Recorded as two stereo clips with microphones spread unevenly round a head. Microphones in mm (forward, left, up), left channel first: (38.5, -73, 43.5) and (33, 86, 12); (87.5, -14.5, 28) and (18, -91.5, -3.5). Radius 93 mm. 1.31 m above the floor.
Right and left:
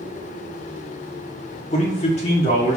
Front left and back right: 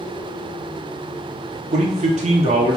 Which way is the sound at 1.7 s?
145° right.